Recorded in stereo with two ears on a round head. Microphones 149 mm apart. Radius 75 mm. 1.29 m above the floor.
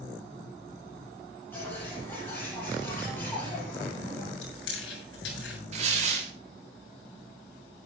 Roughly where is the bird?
Centre.